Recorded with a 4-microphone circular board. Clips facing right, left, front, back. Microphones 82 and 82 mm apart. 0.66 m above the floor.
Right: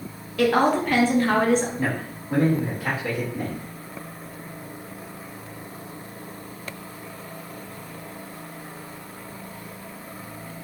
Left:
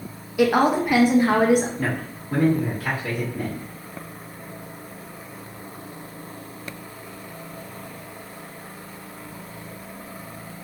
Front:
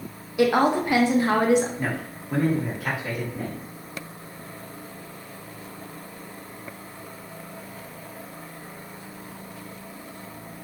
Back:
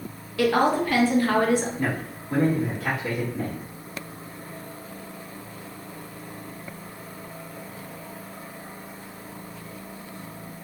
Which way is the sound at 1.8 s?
80° right.